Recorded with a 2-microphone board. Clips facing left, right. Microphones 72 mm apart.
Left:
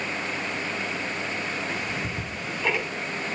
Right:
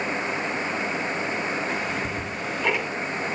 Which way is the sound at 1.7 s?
5° right (ahead or behind).